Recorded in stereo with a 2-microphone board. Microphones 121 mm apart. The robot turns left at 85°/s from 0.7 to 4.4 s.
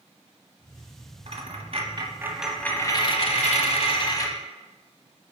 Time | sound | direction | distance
1.3 | a dropped coin | 75° right | 1.1 m